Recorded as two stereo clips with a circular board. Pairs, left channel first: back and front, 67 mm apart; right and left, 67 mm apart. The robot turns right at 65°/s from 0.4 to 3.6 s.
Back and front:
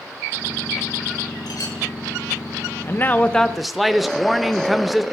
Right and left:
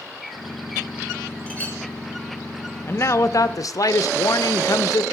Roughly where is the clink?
Behind.